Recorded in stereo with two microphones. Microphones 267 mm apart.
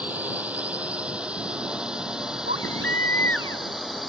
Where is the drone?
5° right (ahead or behind); by 4.1 s centre (ahead or behind).